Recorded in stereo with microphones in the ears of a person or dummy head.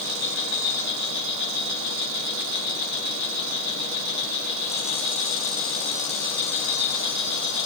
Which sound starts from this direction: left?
An insect, at 0.0 s.